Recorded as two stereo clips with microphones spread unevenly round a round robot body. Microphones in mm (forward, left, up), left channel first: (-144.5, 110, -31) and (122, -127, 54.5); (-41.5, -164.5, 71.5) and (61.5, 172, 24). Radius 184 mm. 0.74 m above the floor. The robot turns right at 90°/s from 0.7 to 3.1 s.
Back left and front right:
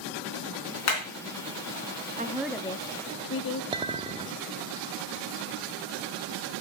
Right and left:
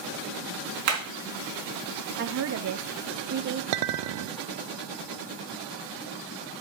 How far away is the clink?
About 0.5 m.